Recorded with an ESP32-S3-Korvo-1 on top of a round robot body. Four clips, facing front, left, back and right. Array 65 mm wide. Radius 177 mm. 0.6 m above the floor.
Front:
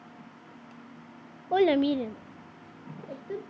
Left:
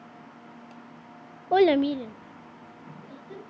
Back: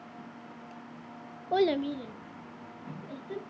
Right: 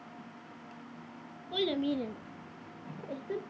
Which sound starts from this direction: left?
A child speaking, at 1.5 s.